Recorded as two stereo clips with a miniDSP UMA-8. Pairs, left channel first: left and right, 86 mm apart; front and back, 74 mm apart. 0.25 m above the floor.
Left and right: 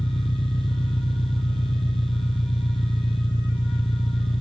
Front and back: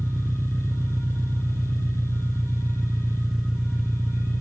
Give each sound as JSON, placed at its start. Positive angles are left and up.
{"t": 0.0, "sound": "an engine running", "azimuth_deg": 95}